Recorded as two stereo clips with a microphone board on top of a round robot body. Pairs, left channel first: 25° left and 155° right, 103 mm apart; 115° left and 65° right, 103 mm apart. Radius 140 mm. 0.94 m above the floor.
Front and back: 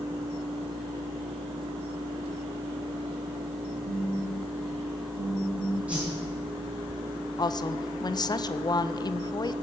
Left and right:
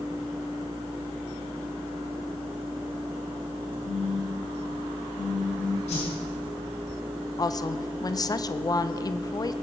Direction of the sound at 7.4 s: 65° left.